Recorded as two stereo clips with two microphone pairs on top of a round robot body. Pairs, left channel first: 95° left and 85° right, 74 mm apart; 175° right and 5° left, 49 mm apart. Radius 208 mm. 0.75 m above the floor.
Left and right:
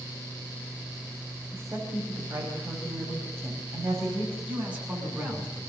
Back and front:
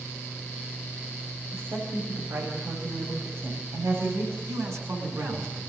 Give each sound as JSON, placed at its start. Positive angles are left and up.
{"t": 1.5, "sound": "a woman speaking", "azimuth_deg": -25, "distance_m": 6.5}
{"t": 4.5, "sound": "a man speaking", "azimuth_deg": -10, "distance_m": 8.5}